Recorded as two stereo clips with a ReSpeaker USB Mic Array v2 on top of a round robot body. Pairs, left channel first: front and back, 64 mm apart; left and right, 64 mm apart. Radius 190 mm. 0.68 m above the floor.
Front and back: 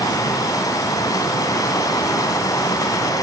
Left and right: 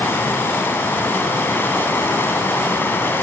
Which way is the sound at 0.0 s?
30° left.